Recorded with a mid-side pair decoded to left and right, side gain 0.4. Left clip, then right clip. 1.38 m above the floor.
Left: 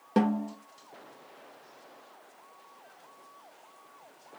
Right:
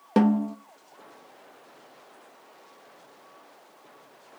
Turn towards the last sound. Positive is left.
turn(degrees=-40)